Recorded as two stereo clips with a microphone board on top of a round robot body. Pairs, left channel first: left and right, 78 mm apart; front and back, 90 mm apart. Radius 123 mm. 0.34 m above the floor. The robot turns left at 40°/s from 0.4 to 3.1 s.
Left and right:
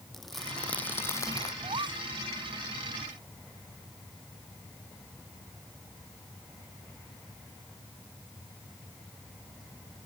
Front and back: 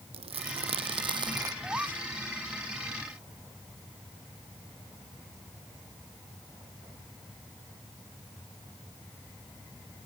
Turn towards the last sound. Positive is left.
turn(degrees=-155)